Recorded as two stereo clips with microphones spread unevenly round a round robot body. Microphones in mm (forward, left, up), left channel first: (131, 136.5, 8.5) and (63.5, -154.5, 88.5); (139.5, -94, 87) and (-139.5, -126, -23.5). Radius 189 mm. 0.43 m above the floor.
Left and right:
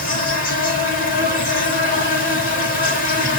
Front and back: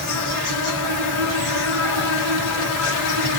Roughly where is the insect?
Ahead left.